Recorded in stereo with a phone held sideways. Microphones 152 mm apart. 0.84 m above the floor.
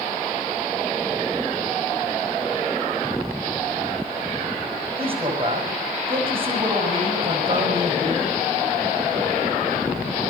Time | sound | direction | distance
5.0 | a man speaking | 40° right (ahead or behind) | 5 m